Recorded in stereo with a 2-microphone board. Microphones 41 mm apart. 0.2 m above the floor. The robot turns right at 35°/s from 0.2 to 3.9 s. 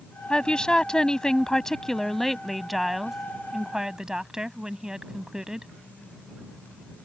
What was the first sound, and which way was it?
A woman speaking, 20° left (ahead or behind).